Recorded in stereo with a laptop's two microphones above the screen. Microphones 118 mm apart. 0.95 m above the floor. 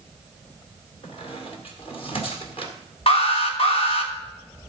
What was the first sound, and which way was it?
A squeak, 55° left (ahead or behind).